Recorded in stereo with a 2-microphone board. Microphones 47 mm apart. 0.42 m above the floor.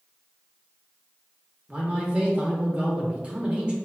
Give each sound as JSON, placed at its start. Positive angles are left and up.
{"t": 1.7, "sound": "a man speaking", "side_deg": -30, "distance_m": 0.8}